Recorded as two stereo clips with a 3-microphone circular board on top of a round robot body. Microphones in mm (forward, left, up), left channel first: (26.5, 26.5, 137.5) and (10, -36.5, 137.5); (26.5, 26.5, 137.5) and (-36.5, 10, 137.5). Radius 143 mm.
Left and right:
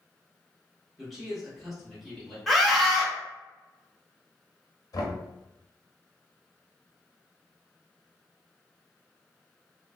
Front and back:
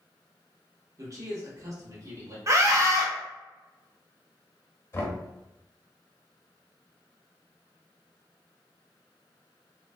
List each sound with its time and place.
1.0 s a man speaking: 165° left, 1.8 m
2.5 s a scream: 165° left, 1.2 m
4.9 s knocking: 65° left, 1.0 m